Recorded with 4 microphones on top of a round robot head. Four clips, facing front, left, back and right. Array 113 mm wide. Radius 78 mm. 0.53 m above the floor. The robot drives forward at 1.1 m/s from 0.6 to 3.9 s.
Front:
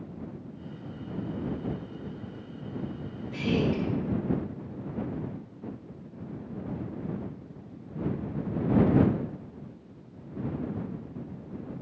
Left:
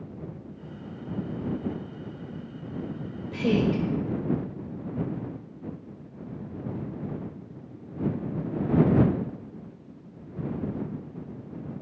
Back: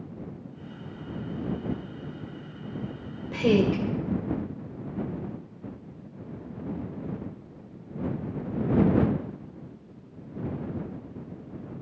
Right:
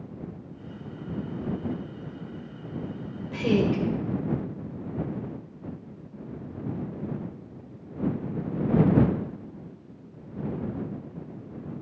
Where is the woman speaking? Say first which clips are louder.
Even, back 5 dB; 170° left, 2.5 m.